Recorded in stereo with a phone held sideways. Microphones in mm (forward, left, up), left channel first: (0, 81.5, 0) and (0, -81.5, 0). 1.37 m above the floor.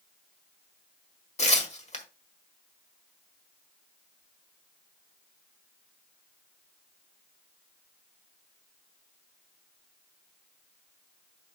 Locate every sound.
1.4 s tearing paper: 45° left (ahead or behind), 1.6 m